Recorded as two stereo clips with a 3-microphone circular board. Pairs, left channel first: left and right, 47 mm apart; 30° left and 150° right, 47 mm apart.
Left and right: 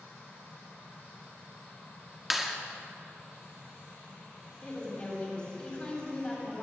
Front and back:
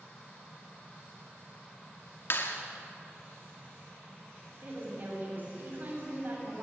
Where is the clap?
5° right, 2 m.